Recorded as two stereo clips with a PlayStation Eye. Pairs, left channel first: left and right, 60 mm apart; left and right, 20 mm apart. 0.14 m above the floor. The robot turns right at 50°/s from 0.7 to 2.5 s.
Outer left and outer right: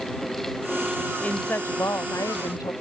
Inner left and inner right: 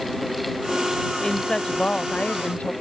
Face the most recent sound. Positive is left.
turn(degrees=90)